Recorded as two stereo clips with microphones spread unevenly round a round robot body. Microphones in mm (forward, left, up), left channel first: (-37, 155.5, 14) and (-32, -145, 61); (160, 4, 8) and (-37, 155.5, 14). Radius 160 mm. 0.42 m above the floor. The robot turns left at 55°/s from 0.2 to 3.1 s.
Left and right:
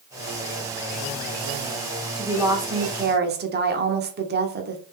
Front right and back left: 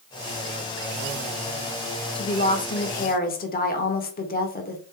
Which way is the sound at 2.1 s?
10° left.